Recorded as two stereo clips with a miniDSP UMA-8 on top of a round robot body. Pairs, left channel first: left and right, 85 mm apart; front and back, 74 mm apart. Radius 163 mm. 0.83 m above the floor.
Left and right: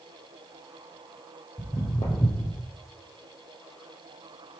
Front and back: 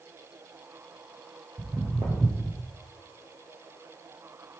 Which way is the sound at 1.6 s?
130° left.